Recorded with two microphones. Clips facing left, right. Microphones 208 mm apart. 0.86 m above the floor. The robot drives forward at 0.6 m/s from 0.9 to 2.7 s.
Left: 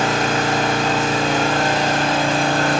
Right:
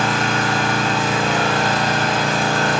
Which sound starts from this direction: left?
An engine running, at 0.0 s.